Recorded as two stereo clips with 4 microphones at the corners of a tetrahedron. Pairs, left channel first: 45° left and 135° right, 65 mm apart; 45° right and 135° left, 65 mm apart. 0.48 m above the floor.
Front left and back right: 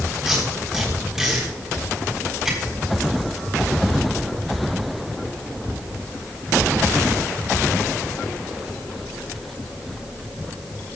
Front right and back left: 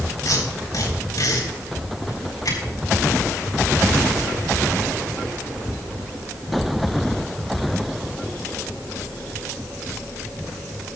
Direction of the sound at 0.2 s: 55° right.